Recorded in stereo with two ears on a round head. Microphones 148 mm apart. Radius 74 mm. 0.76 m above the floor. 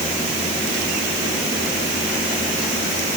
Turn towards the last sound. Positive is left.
No sound to turn to.